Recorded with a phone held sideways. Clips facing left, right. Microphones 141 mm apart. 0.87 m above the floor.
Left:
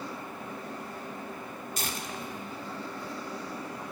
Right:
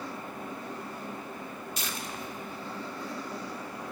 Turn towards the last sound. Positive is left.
turn(degrees=50)  # may be behind; listen again after turning